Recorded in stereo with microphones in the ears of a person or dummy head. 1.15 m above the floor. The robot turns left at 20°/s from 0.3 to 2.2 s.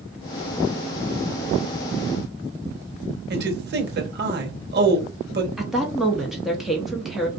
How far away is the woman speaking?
About 0.7 m.